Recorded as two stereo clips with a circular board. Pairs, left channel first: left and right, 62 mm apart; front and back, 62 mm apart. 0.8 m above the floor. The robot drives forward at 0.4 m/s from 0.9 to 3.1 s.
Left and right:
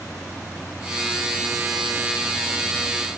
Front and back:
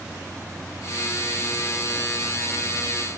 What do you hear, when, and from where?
Only background noise.